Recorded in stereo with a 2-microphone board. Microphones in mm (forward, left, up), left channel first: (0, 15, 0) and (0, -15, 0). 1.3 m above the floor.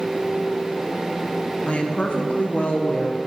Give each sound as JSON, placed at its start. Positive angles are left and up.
{"t": 1.7, "sound": "a woman speaking", "side_deg": 45, "distance_m": 1.1}